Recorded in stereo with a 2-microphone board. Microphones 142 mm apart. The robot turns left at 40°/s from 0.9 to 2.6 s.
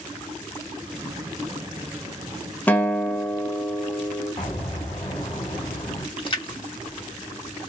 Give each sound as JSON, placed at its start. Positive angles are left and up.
{"t": 2.7, "sound": "a guitar", "side_deg": 10, "distance_m": 0.5}
{"t": 4.4, "sound": "an explosion", "side_deg": 40, "distance_m": 1.7}
{"t": 6.2, "sound": "a splash", "side_deg": 35, "distance_m": 0.9}